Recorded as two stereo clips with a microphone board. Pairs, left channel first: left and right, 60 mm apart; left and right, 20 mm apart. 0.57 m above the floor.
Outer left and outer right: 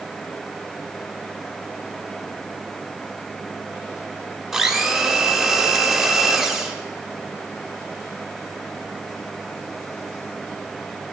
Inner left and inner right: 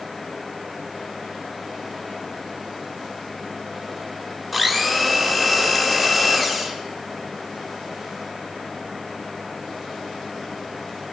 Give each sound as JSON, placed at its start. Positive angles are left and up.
{"t": 4.5, "sound": "a blender", "side_deg": -5, "distance_m": 1.2}